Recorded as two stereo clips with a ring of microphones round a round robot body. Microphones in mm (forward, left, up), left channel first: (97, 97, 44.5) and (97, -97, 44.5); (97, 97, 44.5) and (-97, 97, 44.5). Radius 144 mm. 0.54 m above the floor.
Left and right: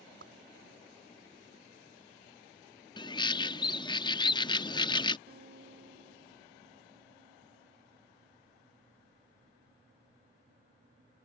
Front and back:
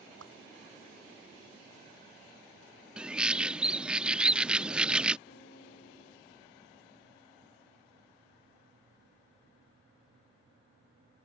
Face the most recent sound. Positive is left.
turn(degrees=-55)